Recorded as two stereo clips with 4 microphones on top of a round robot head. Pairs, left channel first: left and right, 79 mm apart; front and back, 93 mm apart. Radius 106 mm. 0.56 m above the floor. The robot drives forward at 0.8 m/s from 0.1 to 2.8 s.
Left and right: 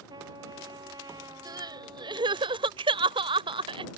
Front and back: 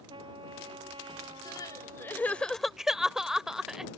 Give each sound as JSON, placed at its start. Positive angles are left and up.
{"t": 0.1, "sound": "a trumpet", "azimuth_deg": -135}
{"t": 1.4, "sound": "crying", "azimuth_deg": -55}